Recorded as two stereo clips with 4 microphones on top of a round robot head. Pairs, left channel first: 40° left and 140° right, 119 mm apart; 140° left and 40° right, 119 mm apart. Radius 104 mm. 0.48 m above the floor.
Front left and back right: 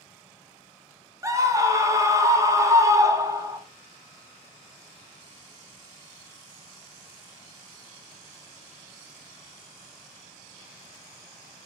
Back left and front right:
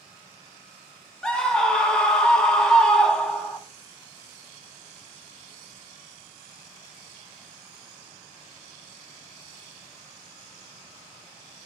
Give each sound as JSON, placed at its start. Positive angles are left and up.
{"t": 1.2, "sound": "a scream", "azimuth_deg": -145, "distance_m": 0.7}